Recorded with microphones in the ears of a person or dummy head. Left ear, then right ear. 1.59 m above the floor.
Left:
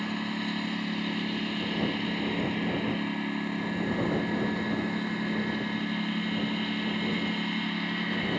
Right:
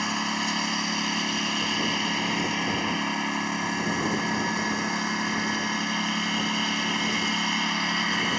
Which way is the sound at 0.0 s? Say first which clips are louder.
Right 7 dB; 50° right (ahead or behind).